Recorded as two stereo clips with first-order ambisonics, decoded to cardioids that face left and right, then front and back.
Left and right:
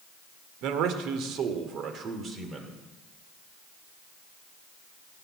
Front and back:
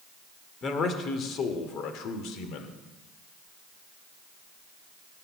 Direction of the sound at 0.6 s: 65° right.